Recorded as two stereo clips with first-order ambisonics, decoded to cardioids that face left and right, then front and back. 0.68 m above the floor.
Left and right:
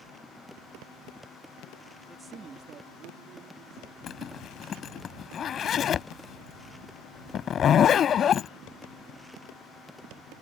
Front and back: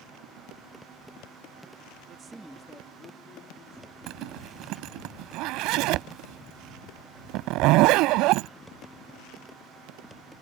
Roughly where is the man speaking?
Behind.